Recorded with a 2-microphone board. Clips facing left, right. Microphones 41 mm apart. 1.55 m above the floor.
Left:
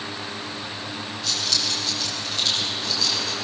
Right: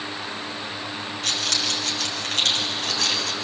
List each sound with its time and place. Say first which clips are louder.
1.2 s keys jangling: right 1 dB; 55° right (ahead or behind), 6.5 m; by 3.3 s 60° right (ahead or behind), 5.5 m